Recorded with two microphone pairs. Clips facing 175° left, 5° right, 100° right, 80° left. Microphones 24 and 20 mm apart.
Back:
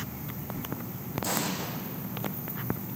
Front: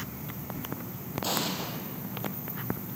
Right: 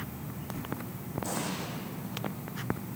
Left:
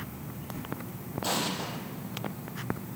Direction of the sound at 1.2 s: 55° left.